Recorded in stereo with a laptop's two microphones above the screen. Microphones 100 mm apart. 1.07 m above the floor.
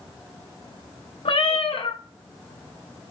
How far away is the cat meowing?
About 0.5 m.